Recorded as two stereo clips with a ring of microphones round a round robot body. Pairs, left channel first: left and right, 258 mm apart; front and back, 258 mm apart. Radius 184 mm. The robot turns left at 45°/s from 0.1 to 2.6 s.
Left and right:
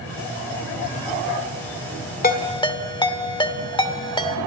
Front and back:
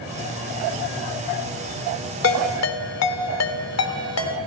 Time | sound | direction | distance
2.2 | a ringtone | 35° left | 2 m